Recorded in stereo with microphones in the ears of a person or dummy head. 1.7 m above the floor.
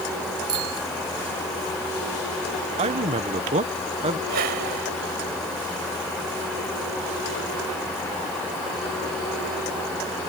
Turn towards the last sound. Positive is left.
turn(degrees=-50)  # may be behind; listen again after turning